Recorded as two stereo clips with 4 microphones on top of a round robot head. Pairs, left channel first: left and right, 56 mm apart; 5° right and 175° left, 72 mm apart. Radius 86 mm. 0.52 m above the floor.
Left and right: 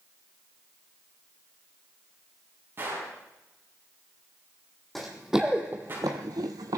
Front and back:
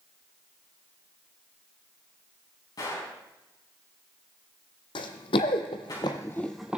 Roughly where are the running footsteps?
Ahead.